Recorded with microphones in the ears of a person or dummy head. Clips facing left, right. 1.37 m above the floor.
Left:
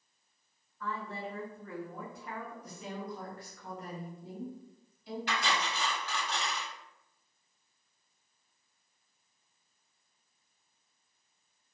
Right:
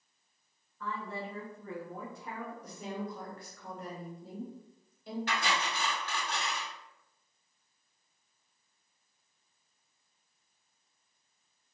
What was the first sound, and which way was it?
A woman speaking, 75° right (ahead or behind).